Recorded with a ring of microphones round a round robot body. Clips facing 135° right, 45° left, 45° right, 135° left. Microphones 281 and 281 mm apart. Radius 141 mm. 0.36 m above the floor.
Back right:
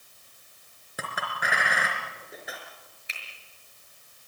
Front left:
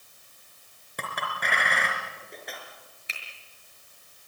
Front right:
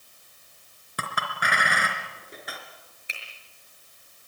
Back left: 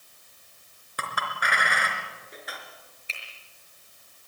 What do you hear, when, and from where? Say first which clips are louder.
1.0 s a clink: even, front right 1 dB; 50° right, 3.5 m
3.1 s a finger snap: front left 1 dB, front right 2 dB; 30° left, 5.5 m